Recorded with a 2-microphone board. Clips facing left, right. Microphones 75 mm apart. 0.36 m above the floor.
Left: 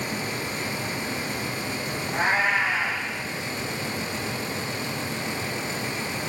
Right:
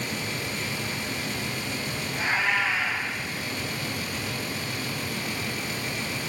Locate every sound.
2.1 s a cat meowing: 60° left (ahead or behind), 9 m